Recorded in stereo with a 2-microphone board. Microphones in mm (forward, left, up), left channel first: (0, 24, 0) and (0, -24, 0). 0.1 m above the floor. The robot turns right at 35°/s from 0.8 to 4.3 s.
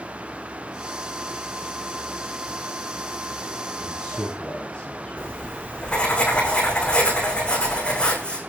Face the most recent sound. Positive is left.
turn(degrees=20)  # may be behind; listen again after turning